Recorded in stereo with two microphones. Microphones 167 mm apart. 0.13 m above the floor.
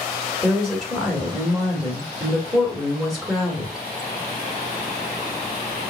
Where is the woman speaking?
Centre (ahead or behind), 1.6 m.